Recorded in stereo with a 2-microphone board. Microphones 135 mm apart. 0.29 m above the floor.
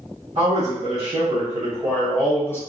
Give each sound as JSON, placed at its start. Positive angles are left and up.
{"t": 0.3, "sound": "a man speaking", "side_deg": -50, "distance_m": 1.8}